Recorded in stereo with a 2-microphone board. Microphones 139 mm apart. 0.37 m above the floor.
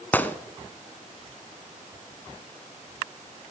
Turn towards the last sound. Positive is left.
turn(degrees=15)  # may be behind; listen again after turning